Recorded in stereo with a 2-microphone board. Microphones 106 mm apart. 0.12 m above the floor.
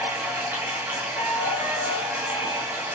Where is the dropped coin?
No dropped coin in this recording.